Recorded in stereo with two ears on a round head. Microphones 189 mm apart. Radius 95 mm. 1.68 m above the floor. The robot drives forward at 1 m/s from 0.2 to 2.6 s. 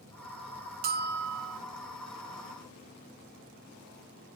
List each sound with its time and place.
0.8 s a bell: 45° right (ahead or behind); by 1.6 s 75° right (ahead or behind)